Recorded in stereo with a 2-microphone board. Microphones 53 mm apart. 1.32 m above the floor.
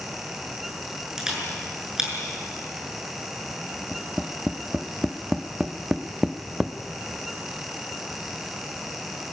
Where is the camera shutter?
10° right (ahead or behind), 6.5 m.